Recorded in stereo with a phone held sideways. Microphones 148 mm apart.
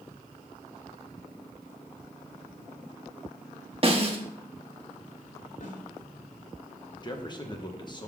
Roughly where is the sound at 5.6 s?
Left.